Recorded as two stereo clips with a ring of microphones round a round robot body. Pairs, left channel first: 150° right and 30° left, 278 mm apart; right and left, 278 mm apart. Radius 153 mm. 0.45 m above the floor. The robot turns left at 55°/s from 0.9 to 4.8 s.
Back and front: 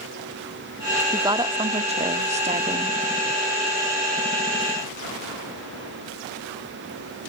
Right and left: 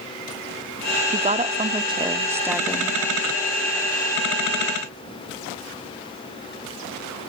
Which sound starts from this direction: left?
A woman speaking, at 1.1 s.